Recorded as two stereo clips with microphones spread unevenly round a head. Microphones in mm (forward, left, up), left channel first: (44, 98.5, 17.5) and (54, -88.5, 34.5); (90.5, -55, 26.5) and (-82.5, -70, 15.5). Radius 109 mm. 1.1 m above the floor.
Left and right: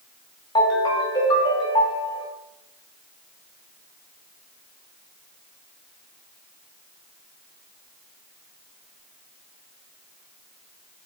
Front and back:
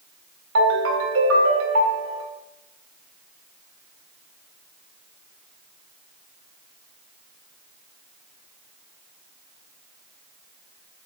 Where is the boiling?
I don't hear boiling.